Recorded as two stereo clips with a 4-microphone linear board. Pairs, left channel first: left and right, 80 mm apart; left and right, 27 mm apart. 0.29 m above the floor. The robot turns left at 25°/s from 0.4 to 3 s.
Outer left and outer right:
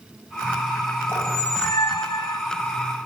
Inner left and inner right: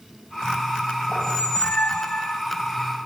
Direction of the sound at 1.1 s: 145° left.